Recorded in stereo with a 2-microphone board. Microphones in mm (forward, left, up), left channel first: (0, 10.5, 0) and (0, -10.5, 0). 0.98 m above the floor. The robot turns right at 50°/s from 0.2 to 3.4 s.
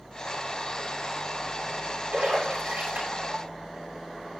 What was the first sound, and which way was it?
A splash, 70° right (ahead or behind).